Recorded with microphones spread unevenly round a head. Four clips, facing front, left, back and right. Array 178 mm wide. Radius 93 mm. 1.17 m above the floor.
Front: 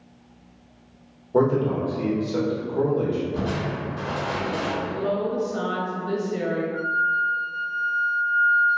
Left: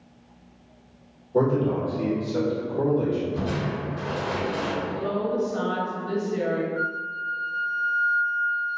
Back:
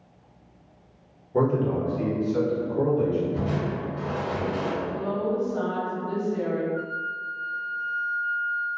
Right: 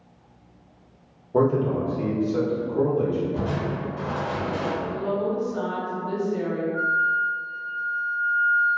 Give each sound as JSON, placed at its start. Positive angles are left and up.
{"t": 1.3, "sound": "a man speaking", "azimuth_deg": -35, "distance_m": 1.1}
{"t": 3.3, "sound": "crushing", "azimuth_deg": -35, "distance_m": 1.4}
{"t": 4.8, "sound": "a woman speaking", "azimuth_deg": 35, "distance_m": 1.1}
{"t": 6.7, "sound": "a flute", "azimuth_deg": -35, "distance_m": 1.6}